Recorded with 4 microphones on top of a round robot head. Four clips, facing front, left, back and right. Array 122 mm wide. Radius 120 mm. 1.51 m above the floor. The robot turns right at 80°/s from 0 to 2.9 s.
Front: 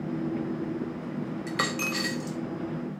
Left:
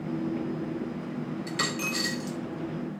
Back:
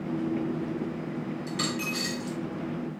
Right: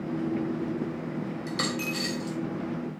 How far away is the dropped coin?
About 1.2 m.